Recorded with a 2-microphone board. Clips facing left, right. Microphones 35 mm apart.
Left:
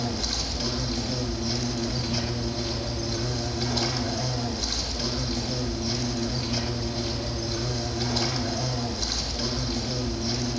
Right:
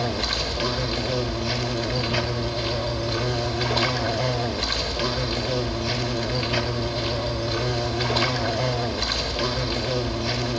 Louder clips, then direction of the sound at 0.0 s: Right 5 dB; 50° right (ahead or behind).